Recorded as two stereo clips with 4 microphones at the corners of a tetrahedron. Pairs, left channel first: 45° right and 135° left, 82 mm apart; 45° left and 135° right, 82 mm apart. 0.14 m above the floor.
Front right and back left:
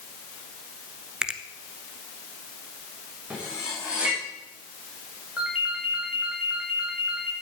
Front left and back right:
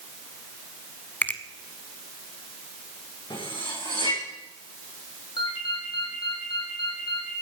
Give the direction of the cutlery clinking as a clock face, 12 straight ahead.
10 o'clock.